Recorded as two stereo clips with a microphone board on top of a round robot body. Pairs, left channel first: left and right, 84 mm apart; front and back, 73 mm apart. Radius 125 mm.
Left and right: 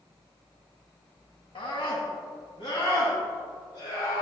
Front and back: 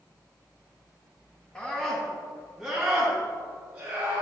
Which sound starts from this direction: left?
A scream, at 1.6 s.